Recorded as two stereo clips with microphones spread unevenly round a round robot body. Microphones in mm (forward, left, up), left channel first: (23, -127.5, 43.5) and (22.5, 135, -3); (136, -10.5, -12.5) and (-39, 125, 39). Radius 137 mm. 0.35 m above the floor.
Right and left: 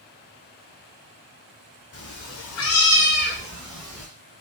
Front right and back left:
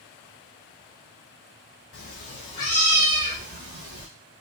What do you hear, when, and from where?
1.9 s a cat meowing: 55° right, 0.9 m; by 4.1 s straight behind, 1.0 m